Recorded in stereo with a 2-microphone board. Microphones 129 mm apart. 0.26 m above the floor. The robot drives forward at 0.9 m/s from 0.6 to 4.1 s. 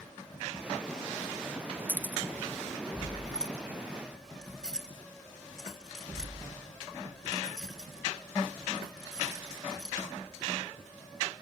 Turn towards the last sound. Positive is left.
turn(degrees=5)  # may be behind; listen again after turning